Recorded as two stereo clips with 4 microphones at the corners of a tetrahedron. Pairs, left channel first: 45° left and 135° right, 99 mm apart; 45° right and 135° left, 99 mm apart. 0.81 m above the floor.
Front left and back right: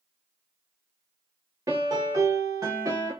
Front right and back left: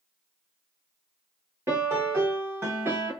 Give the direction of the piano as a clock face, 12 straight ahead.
6 o'clock.